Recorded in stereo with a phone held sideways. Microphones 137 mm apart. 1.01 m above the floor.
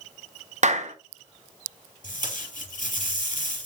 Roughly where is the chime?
No chime in this recording.